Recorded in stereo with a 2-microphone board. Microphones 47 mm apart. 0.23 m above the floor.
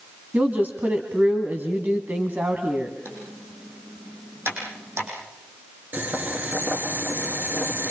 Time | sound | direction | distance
0.3 | a woman speaking | 40° right (ahead or behind) | 1.7 m
3.0 | typing on a keyboard | 70° right (ahead or behind) | 6.5 m
5.9 | boiling | 45° right (ahead or behind) | 3.5 m